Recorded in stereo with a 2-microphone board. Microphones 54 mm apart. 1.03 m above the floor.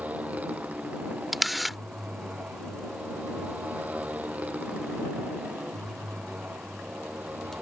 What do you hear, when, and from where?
0.0 s a motorcycle: 30° right (ahead or behind)
1.3 s a camera shutter: centre (ahead or behind)